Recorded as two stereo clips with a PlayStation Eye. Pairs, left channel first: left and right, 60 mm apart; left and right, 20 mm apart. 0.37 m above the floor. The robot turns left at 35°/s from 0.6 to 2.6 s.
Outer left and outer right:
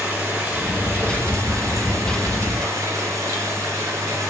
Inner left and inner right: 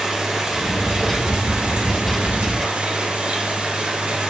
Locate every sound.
0.0 s running water: 20° right, 2.5 m; by 4.3 s 90° right, 2.5 m